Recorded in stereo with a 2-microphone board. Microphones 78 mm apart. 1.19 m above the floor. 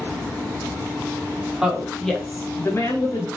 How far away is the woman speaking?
About 1.1 m.